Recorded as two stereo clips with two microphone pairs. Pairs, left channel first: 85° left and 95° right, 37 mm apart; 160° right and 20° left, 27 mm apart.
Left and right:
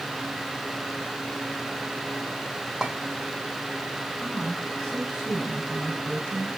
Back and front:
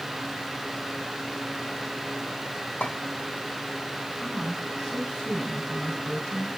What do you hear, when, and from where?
2.8 s a clink: 175° right, 1.9 m
4.2 s a woman speaking: 165° left, 5.5 m